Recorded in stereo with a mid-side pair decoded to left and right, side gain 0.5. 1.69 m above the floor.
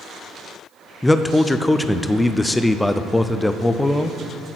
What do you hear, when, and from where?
1.0 s a man speaking: 10° left, 0.5 m